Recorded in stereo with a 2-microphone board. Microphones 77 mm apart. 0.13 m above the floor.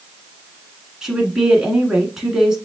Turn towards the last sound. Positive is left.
turn(degrees=-5)  # may be behind; listen again after turning